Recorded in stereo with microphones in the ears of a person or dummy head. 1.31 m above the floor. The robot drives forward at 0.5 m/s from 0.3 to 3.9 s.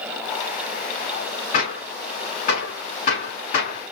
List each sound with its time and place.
1.5 s a gunshot: 50° left (ahead or behind), 6.5 m; by 3.9 s 40° left (ahead or behind), 7.5 m